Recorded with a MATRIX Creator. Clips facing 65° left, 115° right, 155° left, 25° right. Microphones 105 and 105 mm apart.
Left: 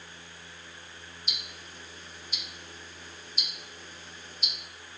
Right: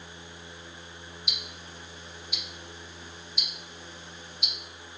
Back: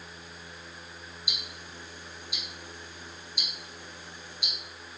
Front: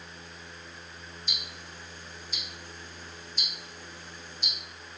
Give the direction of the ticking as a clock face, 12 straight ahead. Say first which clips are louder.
Right 2 dB, even; 9 o'clock.